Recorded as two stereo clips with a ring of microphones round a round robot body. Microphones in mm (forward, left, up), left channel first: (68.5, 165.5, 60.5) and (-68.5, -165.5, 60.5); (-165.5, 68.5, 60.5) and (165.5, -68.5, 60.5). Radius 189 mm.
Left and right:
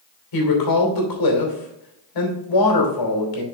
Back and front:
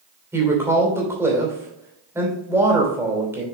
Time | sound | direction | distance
0.3 | a woman speaking | 60° left | 2.5 m